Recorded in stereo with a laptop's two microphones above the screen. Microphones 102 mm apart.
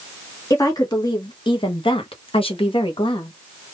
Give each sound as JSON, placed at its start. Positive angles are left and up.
{"t": 0.5, "sound": "a woman speaking", "side_deg": 35, "distance_m": 1.2}